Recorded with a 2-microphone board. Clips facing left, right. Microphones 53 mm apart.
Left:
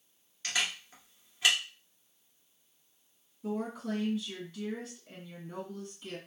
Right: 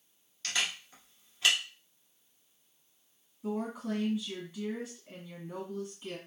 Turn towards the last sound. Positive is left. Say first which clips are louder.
# even
turn(degrees=-15)  # may be behind; listen again after turning